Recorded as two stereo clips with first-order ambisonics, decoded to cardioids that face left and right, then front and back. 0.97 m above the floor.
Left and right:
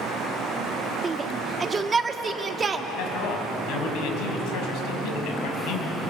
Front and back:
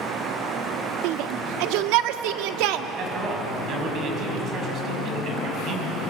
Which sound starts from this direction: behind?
A shout, at 1.0 s.